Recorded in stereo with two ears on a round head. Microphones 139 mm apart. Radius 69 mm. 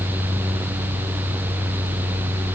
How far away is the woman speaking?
I don't hear a woman speaking.